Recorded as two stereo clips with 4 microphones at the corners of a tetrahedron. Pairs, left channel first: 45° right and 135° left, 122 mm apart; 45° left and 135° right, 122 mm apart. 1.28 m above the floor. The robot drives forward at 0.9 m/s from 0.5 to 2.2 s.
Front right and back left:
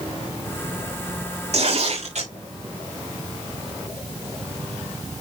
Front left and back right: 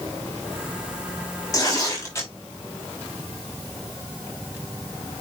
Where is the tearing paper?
105° left, 6.5 m; by 2.3 s 110° left, 7 m.